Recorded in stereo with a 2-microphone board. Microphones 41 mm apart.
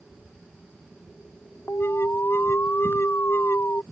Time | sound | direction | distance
1.7 | an alarm | 75° left (ahead or behind) | ?